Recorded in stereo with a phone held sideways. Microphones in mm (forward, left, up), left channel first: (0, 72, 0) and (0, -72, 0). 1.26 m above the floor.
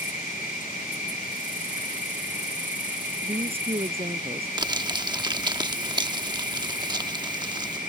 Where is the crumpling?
30° right (ahead or behind).